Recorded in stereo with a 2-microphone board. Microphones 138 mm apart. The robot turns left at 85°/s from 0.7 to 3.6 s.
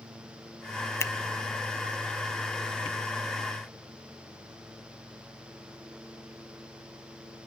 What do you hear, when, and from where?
1.0 s a finger snap: 20° left (ahead or behind), 0.8 m